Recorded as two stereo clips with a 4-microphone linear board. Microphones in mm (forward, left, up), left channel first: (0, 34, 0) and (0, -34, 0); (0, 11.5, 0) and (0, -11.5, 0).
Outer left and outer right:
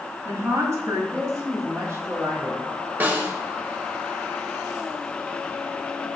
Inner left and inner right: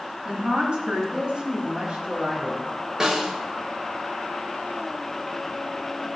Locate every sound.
0.2 s a woman speaking: 45° right (ahead or behind), 3 m; by 2.6 s 40° right (ahead or behind), 2 m
3.0 s a snare drum: 30° right (ahead or behind), 1.4 m